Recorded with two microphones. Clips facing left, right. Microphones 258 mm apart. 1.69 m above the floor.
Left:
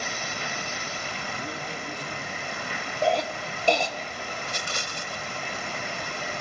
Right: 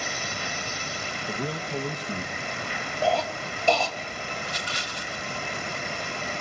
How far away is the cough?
About 3 m.